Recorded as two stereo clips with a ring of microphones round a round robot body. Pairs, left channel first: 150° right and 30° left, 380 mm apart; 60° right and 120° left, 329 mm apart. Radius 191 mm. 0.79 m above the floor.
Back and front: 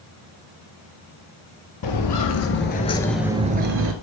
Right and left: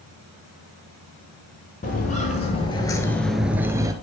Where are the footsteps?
125° right, 1.2 m; by 3.9 s 50° left, 0.9 m.